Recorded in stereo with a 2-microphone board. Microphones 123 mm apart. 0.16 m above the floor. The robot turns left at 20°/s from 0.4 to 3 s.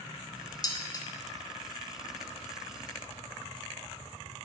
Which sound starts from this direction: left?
Dishes clattering, at 0.6 s.